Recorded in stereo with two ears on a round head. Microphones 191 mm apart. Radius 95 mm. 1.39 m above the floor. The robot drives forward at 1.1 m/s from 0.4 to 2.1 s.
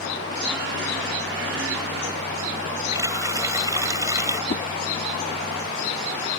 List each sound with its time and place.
2.9 s a running tap: 15° right (ahead or behind)
4.5 s a whoosh: 30° left (ahead or behind)